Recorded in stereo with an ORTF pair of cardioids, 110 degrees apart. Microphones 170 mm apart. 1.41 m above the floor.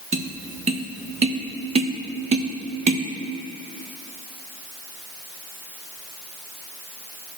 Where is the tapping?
40° right, 1.2 m.